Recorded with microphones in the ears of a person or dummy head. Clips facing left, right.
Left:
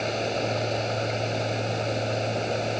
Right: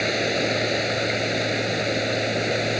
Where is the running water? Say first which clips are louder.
Right 3 dB; 20° right (ahead or behind).